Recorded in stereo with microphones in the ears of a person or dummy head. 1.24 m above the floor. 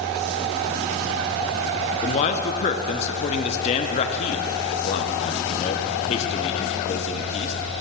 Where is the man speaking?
35° left (ahead or behind), 0.6 m.